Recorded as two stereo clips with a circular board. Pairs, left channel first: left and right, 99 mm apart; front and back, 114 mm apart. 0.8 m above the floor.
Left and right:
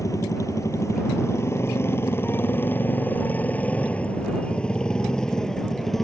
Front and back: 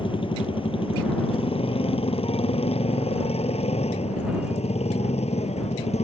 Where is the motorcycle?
35° left; by 6.0 s 5° left.